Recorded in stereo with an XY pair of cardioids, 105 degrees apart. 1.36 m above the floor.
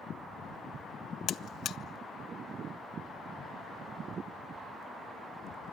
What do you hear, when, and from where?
1.3 s a buzzer: 65° left, 0.5 m